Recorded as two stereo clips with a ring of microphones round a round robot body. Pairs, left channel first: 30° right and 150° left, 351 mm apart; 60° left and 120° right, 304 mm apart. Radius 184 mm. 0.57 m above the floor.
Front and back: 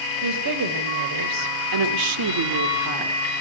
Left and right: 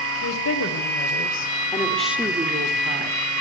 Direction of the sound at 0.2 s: 105° left.